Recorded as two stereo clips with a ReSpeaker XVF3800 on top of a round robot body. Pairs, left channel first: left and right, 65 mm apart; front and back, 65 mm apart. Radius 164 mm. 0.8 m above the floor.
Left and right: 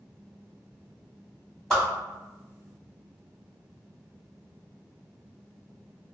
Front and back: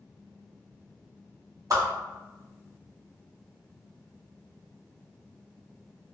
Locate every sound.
1.7 s a whoosh: 175° left, 1.6 m